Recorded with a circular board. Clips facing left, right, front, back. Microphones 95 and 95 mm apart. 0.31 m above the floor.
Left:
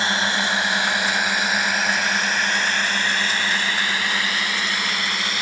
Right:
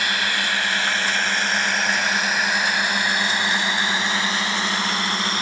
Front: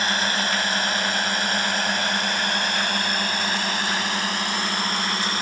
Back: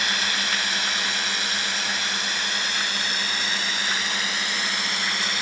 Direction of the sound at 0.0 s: 35° left.